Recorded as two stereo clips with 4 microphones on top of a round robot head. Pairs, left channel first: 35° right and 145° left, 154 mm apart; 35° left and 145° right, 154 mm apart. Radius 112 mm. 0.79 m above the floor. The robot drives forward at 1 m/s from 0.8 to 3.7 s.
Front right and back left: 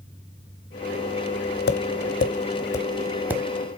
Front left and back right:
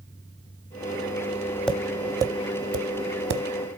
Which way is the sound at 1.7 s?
45° right.